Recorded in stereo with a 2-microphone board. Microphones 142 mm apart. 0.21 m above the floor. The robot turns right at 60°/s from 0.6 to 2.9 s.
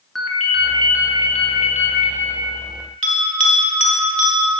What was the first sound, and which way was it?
A ringtone, straight ahead.